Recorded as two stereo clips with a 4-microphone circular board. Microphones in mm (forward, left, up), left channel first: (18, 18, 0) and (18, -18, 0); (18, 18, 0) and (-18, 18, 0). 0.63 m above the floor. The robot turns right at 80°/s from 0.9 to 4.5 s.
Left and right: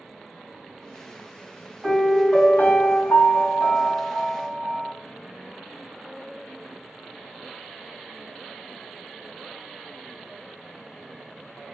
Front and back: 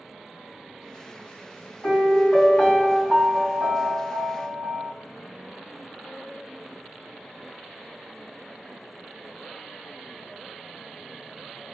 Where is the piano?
Straight ahead, 1.8 m; by 4.9 s 145° right, 1.8 m.